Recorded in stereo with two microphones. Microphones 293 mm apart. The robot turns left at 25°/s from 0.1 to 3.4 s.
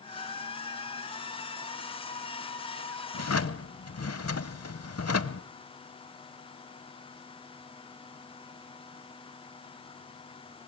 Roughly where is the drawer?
Left.